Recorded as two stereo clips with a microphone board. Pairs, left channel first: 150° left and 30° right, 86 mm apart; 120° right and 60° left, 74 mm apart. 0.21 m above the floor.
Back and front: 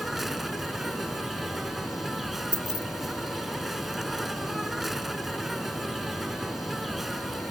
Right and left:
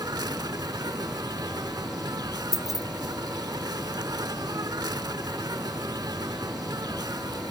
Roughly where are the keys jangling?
Ahead right.